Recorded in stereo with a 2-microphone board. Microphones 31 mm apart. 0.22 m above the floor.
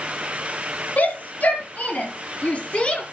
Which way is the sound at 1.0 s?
65° left (ahead or behind).